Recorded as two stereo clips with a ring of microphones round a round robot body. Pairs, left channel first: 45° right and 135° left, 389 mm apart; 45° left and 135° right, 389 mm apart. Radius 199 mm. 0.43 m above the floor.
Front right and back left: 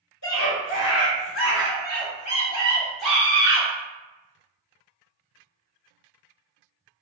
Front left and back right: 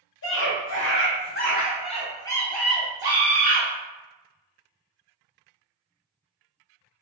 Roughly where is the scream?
Ahead.